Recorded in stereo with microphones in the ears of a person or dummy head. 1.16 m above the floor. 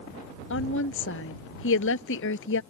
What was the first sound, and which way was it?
A woman speaking, 65° left (ahead or behind).